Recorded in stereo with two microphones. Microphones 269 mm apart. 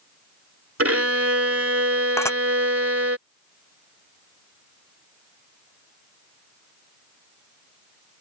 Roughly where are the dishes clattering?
Centre.